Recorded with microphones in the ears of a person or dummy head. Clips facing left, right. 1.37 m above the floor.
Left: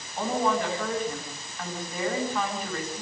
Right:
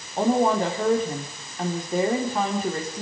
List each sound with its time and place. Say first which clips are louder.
0.2 s a woman speaking: right 6 dB; 25° right (ahead or behind), 4 m